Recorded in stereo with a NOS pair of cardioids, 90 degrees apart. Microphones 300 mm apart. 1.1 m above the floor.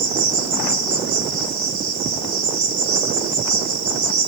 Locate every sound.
0.0 s an insect: 70° right, 1.7 m